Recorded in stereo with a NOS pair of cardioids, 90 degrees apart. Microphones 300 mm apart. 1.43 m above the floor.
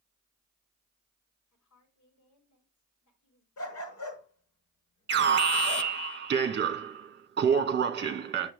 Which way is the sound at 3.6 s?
65° left.